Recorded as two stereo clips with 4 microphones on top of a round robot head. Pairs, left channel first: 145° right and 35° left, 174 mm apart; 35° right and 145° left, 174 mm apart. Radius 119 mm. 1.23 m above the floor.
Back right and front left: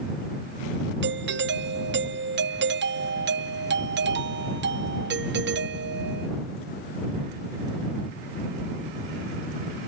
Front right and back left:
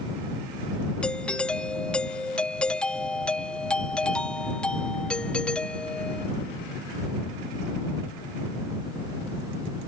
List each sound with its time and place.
1.0 s a doorbell: 50° left